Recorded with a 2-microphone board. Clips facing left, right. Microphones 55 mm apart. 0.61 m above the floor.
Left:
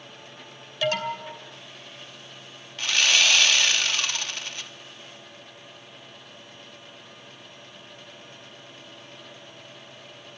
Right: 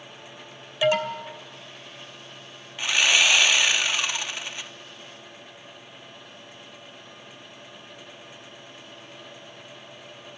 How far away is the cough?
No cough in this recording.